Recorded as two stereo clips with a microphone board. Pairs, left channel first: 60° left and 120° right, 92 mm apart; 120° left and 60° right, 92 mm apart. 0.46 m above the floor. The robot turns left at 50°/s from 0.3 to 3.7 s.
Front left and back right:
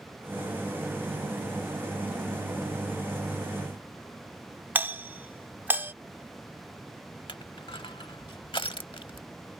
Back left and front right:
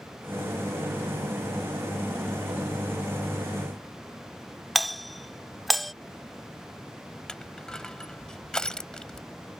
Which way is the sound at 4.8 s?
150° right.